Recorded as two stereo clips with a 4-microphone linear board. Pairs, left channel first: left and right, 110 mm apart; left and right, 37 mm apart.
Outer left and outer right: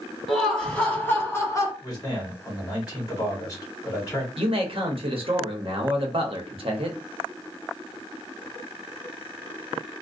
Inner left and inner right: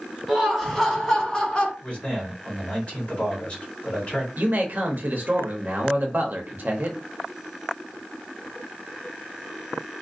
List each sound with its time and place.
0.3 s laughter: 5° left (ahead or behind), 1.3 m; by 1.7 s 35° left (ahead or behind), 0.9 m
1.8 s a man speaking: 30° left (ahead or behind), 1.0 m
4.4 s a man speaking: 55° right (ahead or behind), 0.8 m